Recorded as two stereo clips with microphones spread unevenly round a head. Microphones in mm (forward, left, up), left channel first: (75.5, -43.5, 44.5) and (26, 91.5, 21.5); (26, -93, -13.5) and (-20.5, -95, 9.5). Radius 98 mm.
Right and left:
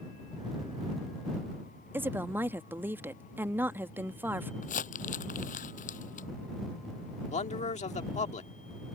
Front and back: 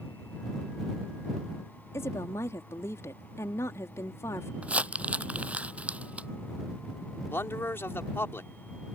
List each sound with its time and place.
1.9 s a woman speaking: 35° left
4.6 s crumpling: 120° right
7.3 s a man speaking: 30° right